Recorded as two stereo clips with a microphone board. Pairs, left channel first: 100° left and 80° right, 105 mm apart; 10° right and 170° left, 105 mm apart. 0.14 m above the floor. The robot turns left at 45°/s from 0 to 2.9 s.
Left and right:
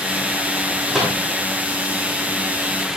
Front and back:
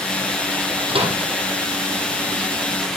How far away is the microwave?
About 5.5 m.